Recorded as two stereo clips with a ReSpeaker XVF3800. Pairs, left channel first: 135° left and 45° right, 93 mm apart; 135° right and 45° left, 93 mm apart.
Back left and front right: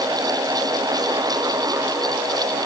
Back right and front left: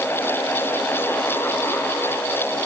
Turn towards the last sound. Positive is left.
No sound to turn to.